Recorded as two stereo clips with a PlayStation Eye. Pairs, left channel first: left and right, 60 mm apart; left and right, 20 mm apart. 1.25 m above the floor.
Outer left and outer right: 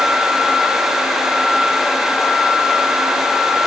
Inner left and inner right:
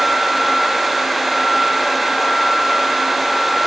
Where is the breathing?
No breathing in this recording.